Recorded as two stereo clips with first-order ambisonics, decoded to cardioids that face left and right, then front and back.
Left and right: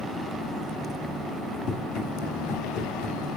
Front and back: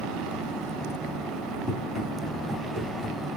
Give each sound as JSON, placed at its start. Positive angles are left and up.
{"t": 1.7, "sound": "running footsteps", "azimuth_deg": 85, "distance_m": 2.0}